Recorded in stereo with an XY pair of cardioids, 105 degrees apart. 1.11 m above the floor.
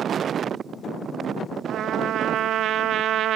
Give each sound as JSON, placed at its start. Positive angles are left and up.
{"t": 1.7, "sound": "a trumpet", "azimuth_deg": -70, "distance_m": 0.8}